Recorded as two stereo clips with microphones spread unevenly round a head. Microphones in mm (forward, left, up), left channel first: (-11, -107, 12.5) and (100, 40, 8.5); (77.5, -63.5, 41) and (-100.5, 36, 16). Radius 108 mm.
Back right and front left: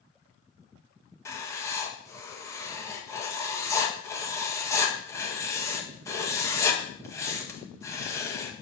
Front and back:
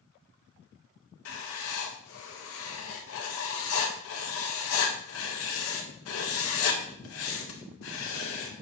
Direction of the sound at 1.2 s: 50° right.